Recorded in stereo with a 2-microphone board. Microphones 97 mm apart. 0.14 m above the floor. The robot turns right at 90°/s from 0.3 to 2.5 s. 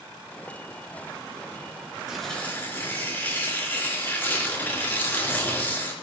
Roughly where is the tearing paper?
Ahead.